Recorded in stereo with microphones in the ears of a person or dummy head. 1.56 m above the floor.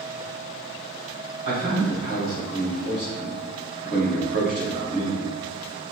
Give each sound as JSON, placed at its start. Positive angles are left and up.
{"t": 1.4, "sound": "a man speaking", "side_deg": -80, "distance_m": 1.8}